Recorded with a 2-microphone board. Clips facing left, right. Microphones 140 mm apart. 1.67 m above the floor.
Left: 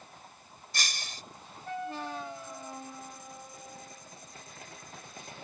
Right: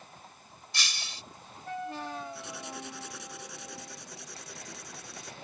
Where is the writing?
85° right.